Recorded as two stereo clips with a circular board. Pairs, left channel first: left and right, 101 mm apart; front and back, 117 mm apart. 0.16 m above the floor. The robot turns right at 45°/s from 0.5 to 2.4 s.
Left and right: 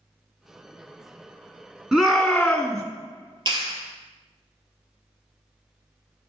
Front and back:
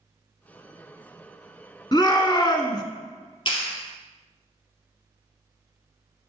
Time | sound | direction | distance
1.9 | a shout | 15° right | 1.7 m
3.5 | a clap | 45° right | 2 m